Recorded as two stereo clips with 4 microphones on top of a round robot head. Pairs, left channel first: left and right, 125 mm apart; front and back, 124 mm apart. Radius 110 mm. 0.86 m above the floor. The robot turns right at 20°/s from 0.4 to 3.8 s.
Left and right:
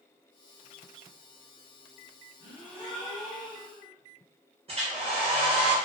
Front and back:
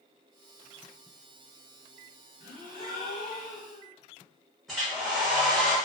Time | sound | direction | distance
2.4 | a gasp | 20° right | 1.4 m
4.7 | a hair dryer | 90° right | 1.3 m